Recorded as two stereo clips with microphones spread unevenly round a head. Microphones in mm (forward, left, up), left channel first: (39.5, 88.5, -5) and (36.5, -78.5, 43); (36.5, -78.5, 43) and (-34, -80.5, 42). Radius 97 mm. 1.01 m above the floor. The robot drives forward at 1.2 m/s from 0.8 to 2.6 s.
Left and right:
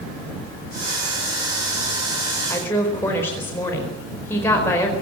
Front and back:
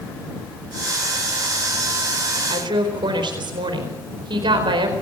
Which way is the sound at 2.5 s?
165° left.